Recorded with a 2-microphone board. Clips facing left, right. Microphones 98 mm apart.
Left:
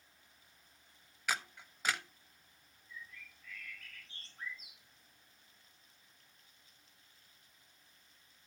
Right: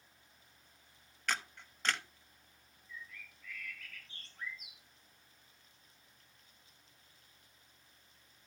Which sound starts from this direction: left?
A bird, at 2.9 s.